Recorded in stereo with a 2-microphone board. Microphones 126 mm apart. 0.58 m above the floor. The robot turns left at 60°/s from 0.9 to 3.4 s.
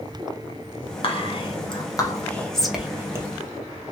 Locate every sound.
1.0 s whispering: 45° left (ahead or behind), 0.9 m; by 3.3 s 25° right (ahead or behind), 0.9 m